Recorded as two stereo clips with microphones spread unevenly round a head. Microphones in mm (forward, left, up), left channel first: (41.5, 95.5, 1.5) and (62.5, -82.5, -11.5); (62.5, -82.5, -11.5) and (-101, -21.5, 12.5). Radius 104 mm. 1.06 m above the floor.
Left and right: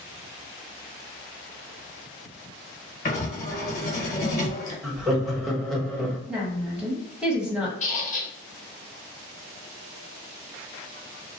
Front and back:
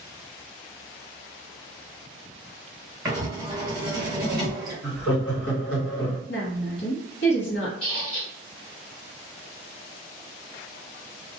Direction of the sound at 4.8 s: 5° left.